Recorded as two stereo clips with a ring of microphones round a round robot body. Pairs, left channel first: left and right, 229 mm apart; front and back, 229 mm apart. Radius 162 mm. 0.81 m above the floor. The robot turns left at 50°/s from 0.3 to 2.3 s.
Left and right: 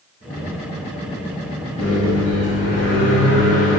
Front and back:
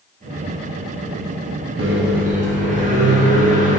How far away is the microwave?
About 0.5 m.